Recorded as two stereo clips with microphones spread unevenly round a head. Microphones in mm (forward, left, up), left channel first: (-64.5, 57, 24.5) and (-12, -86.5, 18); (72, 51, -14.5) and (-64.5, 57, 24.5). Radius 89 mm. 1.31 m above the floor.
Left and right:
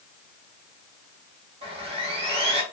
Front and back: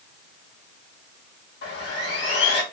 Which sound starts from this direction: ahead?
Sawing, at 1.6 s.